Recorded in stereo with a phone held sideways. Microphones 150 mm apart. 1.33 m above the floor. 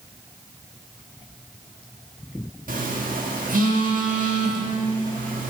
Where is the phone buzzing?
60° right (ahead or behind), 1.2 m.